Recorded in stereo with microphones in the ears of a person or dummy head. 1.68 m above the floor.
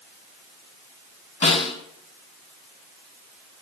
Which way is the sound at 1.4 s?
35° left (ahead or behind).